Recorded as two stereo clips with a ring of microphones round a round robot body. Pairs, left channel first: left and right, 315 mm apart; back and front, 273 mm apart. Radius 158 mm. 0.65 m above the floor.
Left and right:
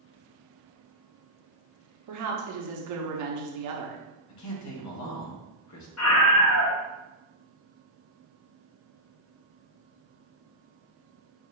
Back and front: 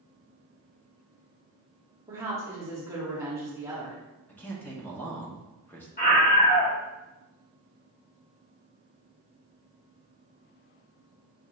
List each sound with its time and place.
2.1 s a woman speaking: 80° right, 1.0 m
4.3 s a man speaking: 100° left, 1.0 m
6.0 s a scream: 125° left, 1.3 m